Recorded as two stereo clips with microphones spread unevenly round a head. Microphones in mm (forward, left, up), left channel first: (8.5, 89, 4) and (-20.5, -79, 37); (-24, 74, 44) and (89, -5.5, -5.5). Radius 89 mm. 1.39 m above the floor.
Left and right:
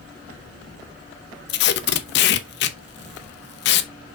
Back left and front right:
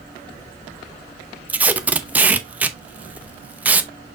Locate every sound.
1.5 s tape being pulled: 60° left, 0.7 m